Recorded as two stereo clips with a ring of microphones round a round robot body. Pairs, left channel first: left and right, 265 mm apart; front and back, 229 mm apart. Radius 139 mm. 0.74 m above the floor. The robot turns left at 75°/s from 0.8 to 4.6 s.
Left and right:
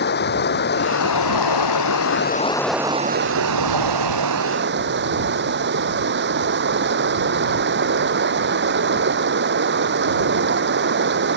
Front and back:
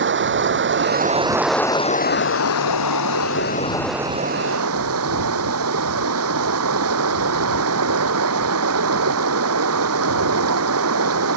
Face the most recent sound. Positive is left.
turn(degrees=-140)